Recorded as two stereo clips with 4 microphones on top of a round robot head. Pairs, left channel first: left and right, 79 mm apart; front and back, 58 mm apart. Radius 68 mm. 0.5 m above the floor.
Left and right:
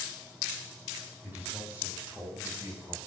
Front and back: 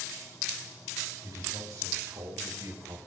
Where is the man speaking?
160° right, 4.5 m; by 3.0 s 150° right, 2.5 m.